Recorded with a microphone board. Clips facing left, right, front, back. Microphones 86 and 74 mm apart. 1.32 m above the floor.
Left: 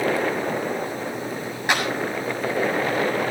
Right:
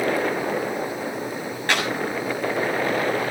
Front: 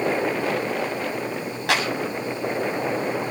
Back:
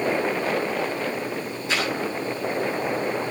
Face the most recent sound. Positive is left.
turn(degrees=15)